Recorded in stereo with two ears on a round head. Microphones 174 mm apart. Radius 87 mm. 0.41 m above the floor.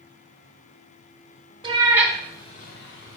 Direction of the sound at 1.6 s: 25° right (ahead or behind).